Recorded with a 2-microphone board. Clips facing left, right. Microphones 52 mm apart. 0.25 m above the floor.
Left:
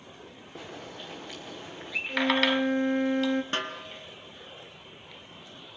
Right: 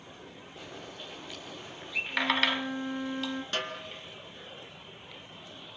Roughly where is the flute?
Left.